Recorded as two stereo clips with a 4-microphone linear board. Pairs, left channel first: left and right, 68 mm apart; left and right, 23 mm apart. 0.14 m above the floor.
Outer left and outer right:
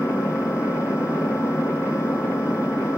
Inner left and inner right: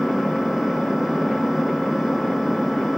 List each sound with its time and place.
0.0 s an engine running: 70° left (ahead or behind), 2.5 m